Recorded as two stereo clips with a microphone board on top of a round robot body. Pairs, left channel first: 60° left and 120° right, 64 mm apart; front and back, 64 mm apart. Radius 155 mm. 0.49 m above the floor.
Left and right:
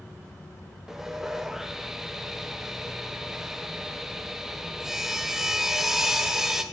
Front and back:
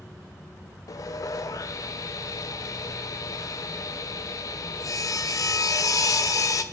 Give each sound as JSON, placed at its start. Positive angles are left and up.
{"t": 0.9, "sound": "sawing", "azimuth_deg": -35, "distance_m": 0.5}